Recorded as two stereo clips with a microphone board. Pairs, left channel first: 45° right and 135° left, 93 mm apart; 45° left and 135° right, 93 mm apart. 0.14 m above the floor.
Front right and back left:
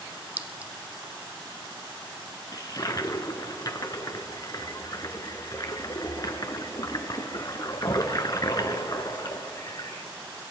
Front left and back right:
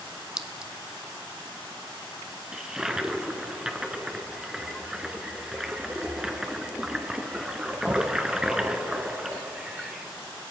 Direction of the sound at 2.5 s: 55° right.